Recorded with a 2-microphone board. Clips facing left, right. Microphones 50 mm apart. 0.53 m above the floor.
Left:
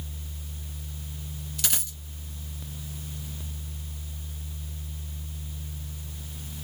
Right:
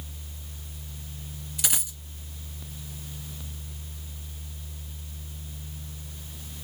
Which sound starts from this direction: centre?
A dropped coin, at 1.6 s.